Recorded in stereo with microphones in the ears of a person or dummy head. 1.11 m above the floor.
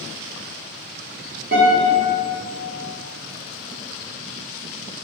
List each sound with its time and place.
1.5 s a guitar: 35° right (ahead or behind), 0.8 m